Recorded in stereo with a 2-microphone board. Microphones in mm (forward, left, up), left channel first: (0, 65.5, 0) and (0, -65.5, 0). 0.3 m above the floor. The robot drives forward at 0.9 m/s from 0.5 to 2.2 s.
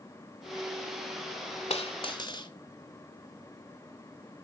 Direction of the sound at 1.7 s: 55° left (ahead or behind).